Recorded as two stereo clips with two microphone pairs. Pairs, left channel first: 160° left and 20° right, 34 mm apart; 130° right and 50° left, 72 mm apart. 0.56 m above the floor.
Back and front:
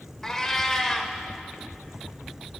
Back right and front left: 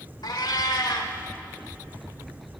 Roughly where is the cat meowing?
Behind right.